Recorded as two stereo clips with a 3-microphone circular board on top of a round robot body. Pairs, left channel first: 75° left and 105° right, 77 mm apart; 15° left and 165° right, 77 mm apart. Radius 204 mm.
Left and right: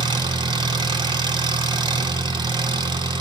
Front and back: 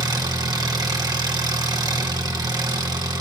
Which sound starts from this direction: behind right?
An engine running, at 0.0 s.